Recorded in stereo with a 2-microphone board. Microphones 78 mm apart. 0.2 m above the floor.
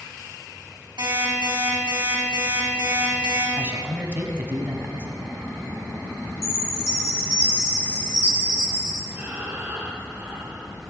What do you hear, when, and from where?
1.0 s an alarm clock: 85° right, 4 m
3.6 s a man speaking: 25° right (ahead or behind), 1.2 m
6.4 s a chime: 30° left (ahead or behind), 2 m
9.1 s breathing: 25° right (ahead or behind), 1.9 m